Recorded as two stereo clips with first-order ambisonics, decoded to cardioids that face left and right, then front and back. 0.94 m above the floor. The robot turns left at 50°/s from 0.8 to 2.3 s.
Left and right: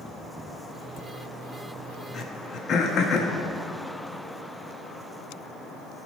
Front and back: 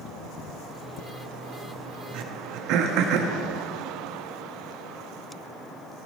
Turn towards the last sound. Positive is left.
turn(degrees=150)